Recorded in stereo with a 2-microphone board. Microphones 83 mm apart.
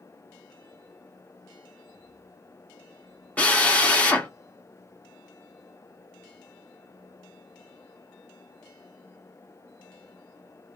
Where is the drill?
15° left (ahead or behind), 1.2 m.